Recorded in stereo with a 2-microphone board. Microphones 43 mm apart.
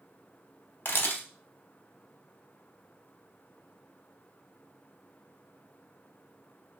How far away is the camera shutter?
About 0.8 m.